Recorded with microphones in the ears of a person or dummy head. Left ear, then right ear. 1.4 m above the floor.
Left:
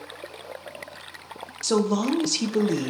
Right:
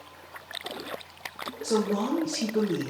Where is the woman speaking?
60° left (ahead or behind), 0.5 m.